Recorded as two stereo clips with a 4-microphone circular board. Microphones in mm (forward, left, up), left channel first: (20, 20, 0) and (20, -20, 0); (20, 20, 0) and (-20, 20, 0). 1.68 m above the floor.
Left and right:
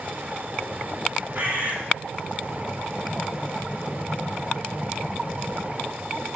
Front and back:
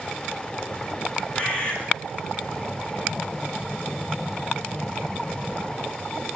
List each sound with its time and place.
1.4 s a bird: 65° right, 5.5 m